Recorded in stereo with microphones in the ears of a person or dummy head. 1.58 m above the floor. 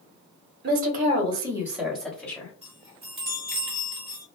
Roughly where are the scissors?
I don't hear scissors.